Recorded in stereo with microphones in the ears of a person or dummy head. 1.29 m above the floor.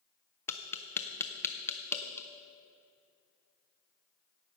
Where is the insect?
I don't hear an insect.